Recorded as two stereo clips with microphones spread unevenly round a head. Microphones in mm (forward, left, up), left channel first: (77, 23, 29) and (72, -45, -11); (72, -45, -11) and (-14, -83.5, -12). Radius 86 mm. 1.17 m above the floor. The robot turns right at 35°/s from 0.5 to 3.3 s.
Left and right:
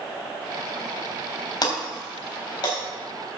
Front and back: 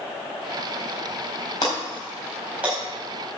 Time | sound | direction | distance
1.6 | breaking glass | 85° left | 4 m